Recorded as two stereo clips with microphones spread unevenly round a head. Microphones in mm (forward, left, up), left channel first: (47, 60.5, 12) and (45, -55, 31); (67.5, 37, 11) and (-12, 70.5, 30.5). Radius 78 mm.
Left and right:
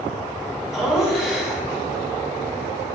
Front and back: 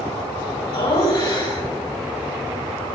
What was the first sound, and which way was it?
Laughter, straight ahead.